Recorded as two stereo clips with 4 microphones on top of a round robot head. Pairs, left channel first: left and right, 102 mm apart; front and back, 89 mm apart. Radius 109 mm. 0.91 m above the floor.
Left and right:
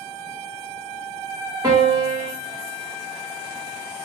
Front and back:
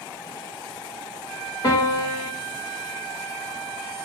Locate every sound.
1.6 s a piano: 40° right, 1.7 m